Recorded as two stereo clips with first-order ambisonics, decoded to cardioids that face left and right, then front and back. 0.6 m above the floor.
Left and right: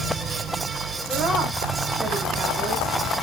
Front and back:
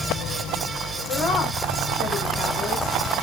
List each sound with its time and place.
1.1 s a woman speaking: 35° right, 1.2 m